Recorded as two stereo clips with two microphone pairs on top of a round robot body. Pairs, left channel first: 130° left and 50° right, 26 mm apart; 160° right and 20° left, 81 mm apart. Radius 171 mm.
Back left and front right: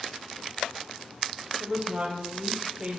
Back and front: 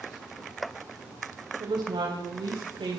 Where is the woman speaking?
20° left, 4.5 m.